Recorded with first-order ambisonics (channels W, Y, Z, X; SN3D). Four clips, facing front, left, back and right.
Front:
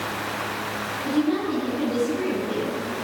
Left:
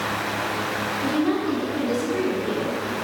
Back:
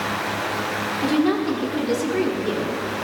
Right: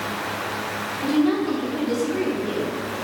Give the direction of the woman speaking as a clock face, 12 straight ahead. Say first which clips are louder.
Right 4 dB, back 3 dB; 6 o'clock.